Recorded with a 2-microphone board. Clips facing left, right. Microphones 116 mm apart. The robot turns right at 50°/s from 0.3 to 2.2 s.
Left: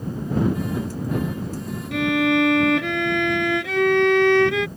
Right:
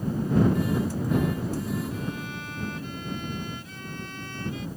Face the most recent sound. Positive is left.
turn(degrees=80)